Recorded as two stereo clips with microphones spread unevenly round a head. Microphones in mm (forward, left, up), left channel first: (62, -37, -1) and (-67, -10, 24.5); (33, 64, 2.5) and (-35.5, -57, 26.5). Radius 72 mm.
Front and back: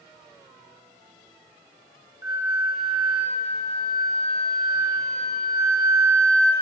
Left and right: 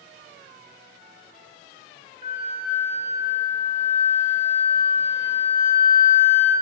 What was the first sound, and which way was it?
A flute, 140° right.